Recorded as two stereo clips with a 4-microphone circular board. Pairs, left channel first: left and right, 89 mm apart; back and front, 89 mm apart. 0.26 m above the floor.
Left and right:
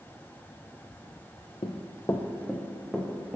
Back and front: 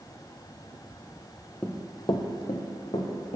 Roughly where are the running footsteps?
Left.